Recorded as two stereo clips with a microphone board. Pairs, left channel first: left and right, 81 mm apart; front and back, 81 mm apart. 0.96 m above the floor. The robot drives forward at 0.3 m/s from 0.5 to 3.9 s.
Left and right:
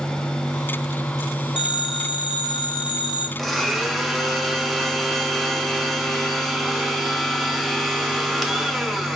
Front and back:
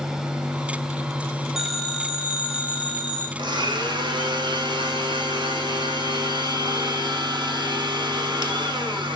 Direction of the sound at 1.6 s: 95° left.